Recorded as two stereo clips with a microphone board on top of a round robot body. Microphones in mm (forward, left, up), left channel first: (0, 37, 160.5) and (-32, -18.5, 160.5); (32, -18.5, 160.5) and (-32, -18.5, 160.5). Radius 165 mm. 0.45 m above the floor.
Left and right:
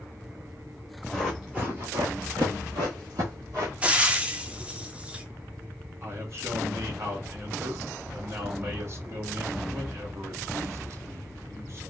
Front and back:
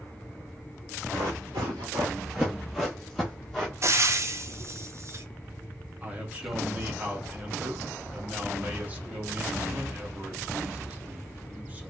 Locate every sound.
1.1 s running footsteps: 150° left, 0.7 m; by 3.7 s 80° right, 1.3 m
3.8 s frying: 175° left, 0.7 m
6.0 s a man speaking: 125° right, 1.4 m